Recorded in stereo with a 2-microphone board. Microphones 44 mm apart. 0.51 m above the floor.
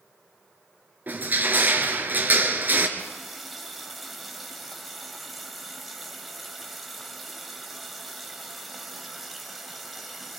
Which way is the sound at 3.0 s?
Centre (ahead or behind).